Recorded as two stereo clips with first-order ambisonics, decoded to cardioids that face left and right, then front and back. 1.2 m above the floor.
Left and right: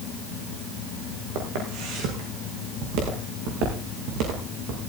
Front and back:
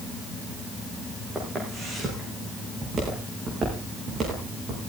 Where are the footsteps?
105° right, 5.5 m; by 4.8 s 120° right, 7 m.